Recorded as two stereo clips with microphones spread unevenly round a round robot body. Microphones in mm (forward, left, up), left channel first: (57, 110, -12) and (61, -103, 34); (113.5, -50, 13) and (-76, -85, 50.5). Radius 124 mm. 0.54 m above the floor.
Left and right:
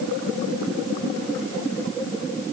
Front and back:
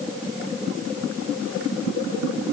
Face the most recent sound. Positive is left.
No sound to turn to.